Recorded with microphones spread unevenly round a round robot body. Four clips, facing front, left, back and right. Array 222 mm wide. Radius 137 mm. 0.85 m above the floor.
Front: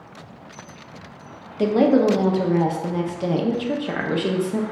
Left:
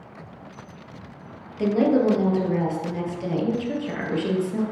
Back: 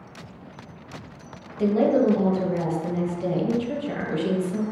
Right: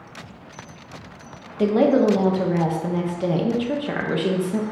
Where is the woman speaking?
25° right, 0.6 m.